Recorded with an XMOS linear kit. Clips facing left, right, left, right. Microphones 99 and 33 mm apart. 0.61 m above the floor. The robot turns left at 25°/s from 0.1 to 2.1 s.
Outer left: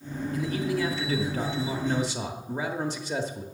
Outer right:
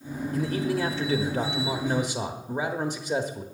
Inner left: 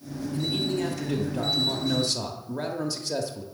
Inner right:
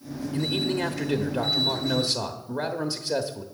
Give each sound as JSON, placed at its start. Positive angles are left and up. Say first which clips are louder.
{"t": 0.3, "sound": "a man speaking", "louder": "outer right 2 dB, inner right 1 dB", "azimuth_deg": -115, "distance_m": 0.9}